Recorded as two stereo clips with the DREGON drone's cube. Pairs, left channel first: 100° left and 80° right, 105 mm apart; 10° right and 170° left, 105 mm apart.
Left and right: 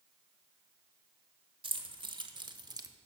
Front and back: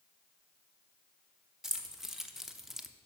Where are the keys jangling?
105° right, 1.1 m.